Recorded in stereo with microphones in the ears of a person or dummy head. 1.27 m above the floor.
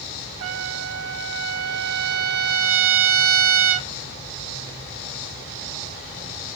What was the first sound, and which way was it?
A trumpet, 75° right (ahead or behind).